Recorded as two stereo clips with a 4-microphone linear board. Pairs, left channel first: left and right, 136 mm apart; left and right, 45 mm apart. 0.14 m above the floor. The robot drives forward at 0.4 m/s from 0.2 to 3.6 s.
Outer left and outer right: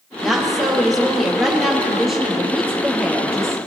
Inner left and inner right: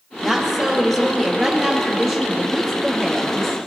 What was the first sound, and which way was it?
A woman speaking, centre (ahead or behind).